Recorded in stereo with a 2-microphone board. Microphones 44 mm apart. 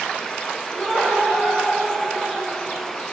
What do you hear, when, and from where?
0.7 s laughter: 10° left (ahead or behind), 4 m; by 3.0 s centre (ahead or behind), 4.5 m